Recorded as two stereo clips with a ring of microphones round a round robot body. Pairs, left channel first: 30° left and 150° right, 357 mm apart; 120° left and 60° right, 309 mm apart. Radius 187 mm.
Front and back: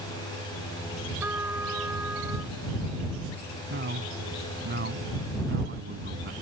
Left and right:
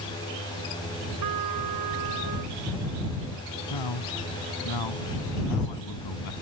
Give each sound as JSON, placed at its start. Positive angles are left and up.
{"t": 1.2, "sound": "a trumpet", "azimuth_deg": -65}
{"t": 3.7, "sound": "a man speaking", "azimuth_deg": 150}